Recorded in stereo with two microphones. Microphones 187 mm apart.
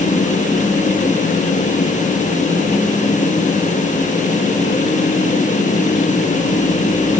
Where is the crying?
I don't hear crying.